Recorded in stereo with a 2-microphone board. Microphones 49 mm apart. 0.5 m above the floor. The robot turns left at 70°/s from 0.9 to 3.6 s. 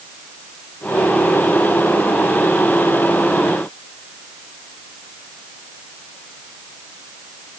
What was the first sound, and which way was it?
Only background noise.